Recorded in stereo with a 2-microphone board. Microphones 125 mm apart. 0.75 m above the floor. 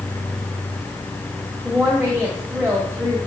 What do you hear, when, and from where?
1.6 s a woman speaking: 20° right (ahead or behind), 1.6 m